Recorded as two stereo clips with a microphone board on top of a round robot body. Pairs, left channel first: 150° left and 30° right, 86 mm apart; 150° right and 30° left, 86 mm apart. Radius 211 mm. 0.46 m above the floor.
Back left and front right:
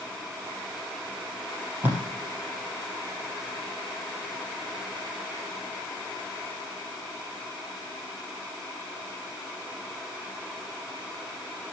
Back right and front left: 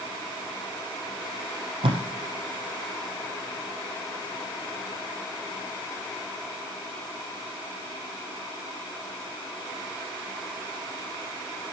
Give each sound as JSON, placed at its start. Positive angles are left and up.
{"t": 1.8, "sound": "tape being pulled", "azimuth_deg": 40, "distance_m": 3.5}